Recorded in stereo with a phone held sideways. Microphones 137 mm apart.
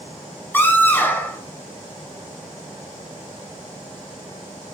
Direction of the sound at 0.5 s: 15° left (ahead or behind).